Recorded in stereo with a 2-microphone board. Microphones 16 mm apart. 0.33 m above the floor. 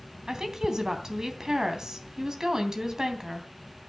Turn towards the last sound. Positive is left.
turn(degrees=-45)  # may be behind; listen again after turning